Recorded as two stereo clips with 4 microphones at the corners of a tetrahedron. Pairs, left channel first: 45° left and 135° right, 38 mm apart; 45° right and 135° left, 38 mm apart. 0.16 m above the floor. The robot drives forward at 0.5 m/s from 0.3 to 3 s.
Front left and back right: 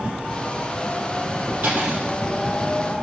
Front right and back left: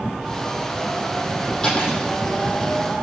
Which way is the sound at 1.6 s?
115° right.